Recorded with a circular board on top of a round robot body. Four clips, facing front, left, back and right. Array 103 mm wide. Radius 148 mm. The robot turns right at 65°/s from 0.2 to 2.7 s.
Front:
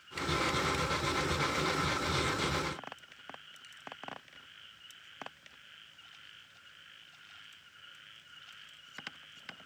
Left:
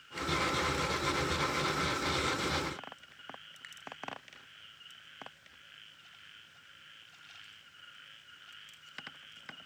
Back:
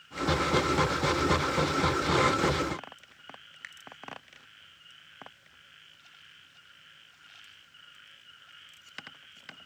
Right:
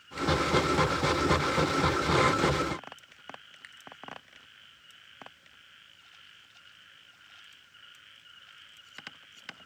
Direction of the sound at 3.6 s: 175° right.